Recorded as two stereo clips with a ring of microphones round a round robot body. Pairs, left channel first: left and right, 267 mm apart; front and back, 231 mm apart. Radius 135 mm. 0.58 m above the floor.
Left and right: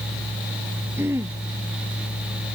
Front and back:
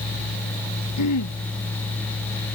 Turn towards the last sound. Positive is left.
turn(degrees=-10)